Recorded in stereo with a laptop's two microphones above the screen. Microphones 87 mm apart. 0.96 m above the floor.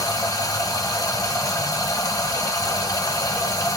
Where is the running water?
45° left (ahead or behind), 1.3 m.